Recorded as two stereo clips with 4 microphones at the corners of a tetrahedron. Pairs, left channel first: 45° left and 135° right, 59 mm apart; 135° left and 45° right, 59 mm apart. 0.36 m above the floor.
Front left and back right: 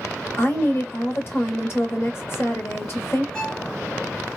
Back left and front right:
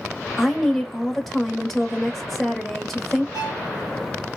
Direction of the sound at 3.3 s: 30° right.